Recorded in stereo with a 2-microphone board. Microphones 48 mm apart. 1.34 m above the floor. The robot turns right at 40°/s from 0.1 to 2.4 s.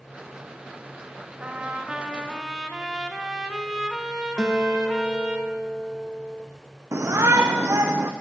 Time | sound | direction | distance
1.4 | a trumpet | 50° right | 0.8 m
4.4 | a guitar | 5° left (ahead or behind) | 0.8 m
6.9 | a shout | 80° right | 0.5 m